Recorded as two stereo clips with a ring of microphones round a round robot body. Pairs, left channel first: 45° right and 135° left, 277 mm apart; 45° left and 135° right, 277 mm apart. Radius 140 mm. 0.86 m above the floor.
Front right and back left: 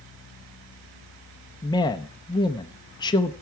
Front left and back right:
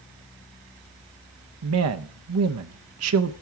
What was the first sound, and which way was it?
A man speaking, 120° right.